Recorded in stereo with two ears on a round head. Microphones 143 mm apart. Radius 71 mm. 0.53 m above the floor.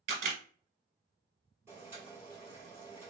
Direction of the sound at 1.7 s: 15° right (ahead or behind).